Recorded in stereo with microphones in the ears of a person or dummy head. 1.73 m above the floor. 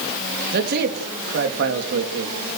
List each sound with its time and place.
0.5 s a man speaking: 55° right (ahead or behind), 3.5 m; by 2.4 s 75° right (ahead or behind), 3.5 m